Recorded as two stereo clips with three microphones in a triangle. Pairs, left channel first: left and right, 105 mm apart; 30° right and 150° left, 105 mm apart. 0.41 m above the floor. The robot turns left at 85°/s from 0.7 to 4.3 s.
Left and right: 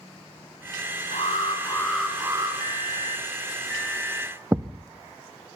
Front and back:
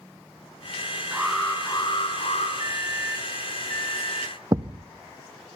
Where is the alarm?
75° left, 6 m; by 2.5 s 40° right, 6 m.